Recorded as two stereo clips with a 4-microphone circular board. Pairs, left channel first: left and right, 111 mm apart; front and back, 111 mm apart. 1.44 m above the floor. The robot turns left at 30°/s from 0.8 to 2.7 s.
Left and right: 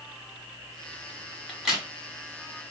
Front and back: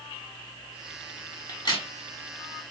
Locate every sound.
1.5 s a crack: straight ahead, 1.3 m; by 1.9 s 10° right, 1.3 m